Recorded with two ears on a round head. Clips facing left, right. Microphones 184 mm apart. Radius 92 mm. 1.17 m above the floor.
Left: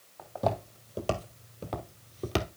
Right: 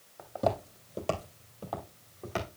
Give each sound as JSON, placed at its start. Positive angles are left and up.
{"t": 0.2, "sound": "footsteps", "side_deg": -10, "distance_m": 2.5}